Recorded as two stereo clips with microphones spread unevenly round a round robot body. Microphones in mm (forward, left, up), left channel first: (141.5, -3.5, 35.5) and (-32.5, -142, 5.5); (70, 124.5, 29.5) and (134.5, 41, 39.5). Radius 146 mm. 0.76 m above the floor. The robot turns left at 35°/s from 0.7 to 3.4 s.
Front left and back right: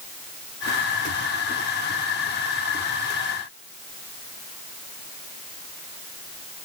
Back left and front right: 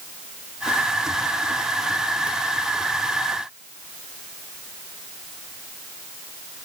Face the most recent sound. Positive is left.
No sound to turn to.